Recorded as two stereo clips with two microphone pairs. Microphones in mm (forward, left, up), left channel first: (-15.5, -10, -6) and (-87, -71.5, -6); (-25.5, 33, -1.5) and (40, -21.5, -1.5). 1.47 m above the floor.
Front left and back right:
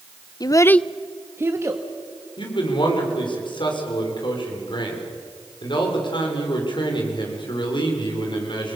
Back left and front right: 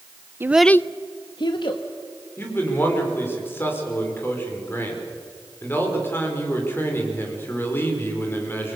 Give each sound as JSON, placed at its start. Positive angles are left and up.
{"t": 0.4, "sound": "a child speaking", "azimuth_deg": 10, "distance_m": 0.6}
{"t": 2.4, "sound": "a man speaking", "azimuth_deg": 75, "distance_m": 5.0}